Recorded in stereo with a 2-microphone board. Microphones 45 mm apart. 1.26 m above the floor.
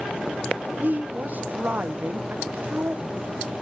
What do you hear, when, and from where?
0.8 s a woman speaking: 40° right (ahead or behind), 0.7 m